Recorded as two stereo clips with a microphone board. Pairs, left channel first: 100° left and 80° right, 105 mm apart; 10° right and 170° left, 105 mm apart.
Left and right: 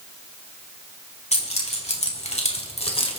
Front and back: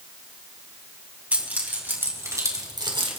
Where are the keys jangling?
95° left, 4 m; by 3.2 s 135° left, 1.8 m.